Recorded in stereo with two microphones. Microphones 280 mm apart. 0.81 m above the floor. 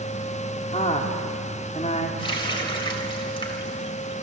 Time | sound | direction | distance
0.7 | a woman speaking | 25° left (ahead or behind) | 2.5 m
2.2 | a running tap | 15° left (ahead or behind) | 3 m